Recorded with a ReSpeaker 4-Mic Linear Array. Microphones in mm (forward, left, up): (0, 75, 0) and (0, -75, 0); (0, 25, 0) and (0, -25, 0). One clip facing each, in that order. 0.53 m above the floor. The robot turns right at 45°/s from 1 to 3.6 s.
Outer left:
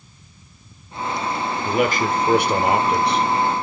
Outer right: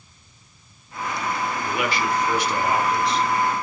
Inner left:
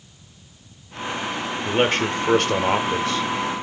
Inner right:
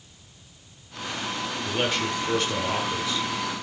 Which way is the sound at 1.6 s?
40° left.